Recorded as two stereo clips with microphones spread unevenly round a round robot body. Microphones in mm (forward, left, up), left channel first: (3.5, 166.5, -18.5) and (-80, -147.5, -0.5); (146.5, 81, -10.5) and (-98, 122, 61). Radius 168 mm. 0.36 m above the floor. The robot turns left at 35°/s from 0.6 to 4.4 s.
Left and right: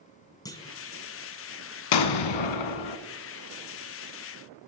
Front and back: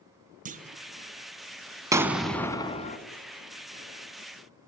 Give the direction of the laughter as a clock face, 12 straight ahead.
I don't hear laughter.